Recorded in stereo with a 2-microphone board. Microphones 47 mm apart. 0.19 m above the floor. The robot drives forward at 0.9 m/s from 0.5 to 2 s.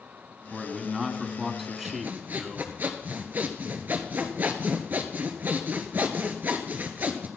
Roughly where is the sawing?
Right.